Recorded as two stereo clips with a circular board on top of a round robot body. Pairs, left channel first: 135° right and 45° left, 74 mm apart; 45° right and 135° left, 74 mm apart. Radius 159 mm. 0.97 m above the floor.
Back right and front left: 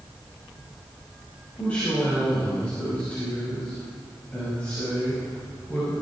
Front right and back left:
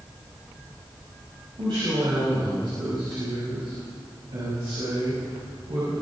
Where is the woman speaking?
155° left, 5.5 m.